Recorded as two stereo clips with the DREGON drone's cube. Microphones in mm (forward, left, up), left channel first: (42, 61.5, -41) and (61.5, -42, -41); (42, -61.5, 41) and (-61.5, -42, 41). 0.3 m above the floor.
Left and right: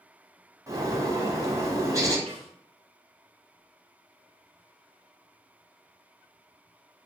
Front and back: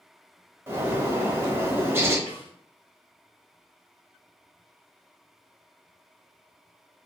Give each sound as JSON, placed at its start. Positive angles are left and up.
{"t": 0.7, "sound": "a bird", "azimuth_deg": -125, "distance_m": 0.8}
{"t": 2.3, "sound": "a snare drum", "azimuth_deg": -45, "distance_m": 1.9}